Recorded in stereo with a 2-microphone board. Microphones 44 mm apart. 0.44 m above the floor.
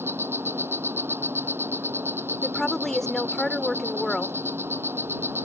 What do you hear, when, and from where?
0.0 s an insect: 70° right (ahead or behind)
2.4 s a woman speaking: 10° left (ahead or behind)